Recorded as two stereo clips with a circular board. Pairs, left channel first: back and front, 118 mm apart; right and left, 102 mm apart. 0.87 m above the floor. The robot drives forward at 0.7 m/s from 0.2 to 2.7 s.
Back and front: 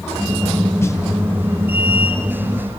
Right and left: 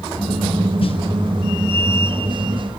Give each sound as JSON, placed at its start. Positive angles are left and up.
{"t": 0.8, "sound": "a snare drum", "azimuth_deg": -115, "distance_m": 1.2}